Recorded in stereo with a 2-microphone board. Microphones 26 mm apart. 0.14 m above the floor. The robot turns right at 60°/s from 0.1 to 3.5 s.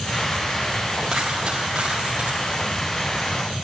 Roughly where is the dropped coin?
Behind.